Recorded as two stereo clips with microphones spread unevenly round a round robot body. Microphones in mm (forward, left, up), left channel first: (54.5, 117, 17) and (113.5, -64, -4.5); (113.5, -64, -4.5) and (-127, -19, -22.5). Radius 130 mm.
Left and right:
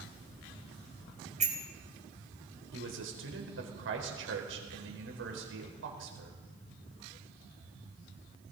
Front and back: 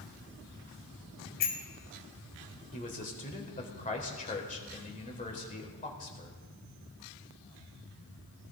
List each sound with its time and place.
1.4 s a bicycle bell: 20° right, 3 m
2.7 s a man speaking: 70° right, 4 m